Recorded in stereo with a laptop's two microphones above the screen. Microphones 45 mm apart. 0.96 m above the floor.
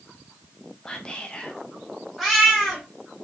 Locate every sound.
0.8 s whispering: 20° left (ahead or behind), 0.5 m
2.2 s a cat meowing: centre (ahead or behind), 1.7 m